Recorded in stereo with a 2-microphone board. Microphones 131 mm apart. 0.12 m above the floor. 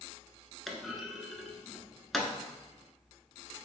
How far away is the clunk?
About 0.8 m.